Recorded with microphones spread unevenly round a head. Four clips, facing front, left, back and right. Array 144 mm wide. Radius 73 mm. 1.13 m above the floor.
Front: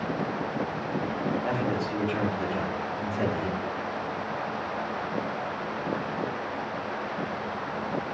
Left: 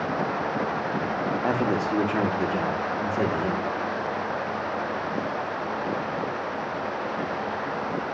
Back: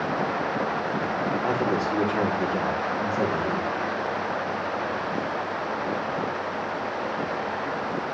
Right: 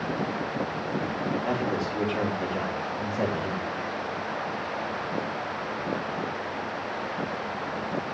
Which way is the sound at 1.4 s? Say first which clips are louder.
Left 4 dB, back 4 dB; 115° left.